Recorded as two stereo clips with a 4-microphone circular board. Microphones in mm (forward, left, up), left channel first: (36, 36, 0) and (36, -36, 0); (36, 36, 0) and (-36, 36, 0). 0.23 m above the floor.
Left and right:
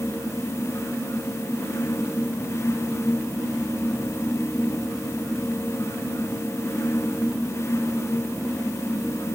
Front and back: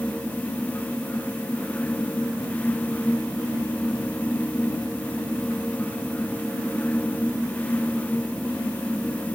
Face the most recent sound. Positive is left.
No sound to turn to.